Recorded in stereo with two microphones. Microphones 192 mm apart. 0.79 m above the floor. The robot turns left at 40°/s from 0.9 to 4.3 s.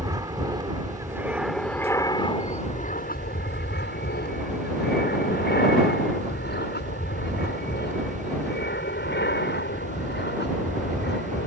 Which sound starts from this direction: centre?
An aircraft, at 0.0 s.